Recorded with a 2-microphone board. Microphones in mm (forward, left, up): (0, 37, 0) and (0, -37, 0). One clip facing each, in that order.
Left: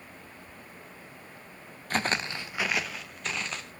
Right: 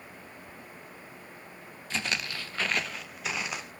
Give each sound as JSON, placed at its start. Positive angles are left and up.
{"t": 1.9, "sound": "footsteps", "side_deg": 50, "distance_m": 0.7}